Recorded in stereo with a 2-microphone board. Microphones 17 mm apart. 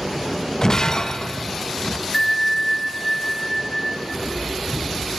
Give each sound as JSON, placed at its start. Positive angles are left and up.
{"t": 0.6, "sound": "breaking glass", "side_deg": 30, "distance_m": 0.5}
{"t": 2.1, "sound": "a bell", "side_deg": 10, "distance_m": 0.9}
{"t": 4.1, "sound": "footsteps", "side_deg": -50, "distance_m": 6.5}